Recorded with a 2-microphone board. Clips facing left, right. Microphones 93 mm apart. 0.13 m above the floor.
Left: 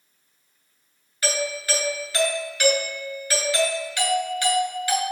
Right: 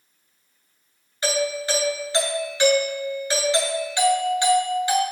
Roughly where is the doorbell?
Right.